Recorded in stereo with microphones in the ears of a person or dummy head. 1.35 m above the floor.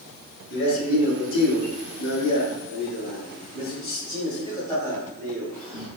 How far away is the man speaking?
About 3 m.